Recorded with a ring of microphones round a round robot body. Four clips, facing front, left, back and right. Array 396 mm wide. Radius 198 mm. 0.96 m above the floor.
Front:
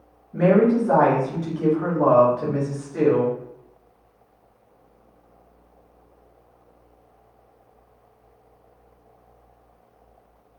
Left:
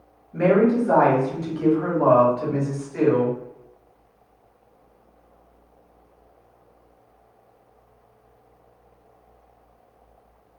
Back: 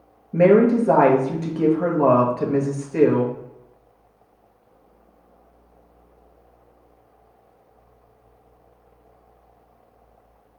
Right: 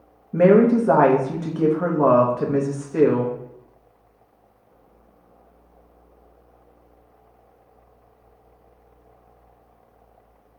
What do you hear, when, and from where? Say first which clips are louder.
0.3 s a woman speaking: right 4 dB, back 3 dB; 130° right, 1.2 m